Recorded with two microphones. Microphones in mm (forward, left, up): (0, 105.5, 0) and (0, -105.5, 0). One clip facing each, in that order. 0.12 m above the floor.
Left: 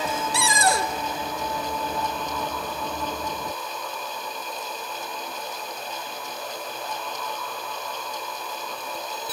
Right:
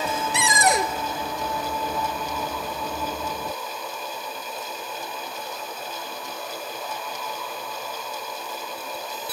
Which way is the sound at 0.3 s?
20° right (ahead or behind).